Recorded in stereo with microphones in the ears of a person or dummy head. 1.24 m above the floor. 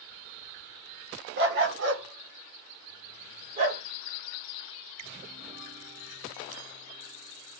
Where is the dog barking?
60° right (ahead or behind), 1.6 m; by 3.8 s 35° right (ahead or behind), 1.7 m.